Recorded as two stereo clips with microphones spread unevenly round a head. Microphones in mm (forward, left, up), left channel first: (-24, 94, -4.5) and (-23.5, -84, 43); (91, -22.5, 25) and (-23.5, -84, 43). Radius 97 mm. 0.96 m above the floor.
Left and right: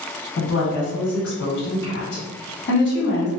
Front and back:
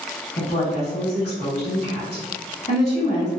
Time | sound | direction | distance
0.4 | a woman speaking | 70° left | 1.4 m